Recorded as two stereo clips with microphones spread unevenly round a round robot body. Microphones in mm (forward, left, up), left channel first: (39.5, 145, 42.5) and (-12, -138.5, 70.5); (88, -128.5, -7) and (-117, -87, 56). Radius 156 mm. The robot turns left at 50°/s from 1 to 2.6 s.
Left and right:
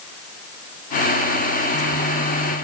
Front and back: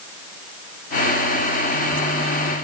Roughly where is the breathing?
I don't hear breathing.